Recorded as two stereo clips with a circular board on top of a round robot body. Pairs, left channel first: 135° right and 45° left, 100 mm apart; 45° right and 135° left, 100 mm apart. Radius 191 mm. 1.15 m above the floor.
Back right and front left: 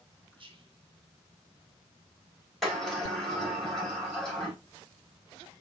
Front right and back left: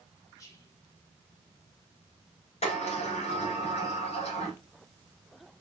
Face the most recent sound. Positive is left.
turn(degrees=-45)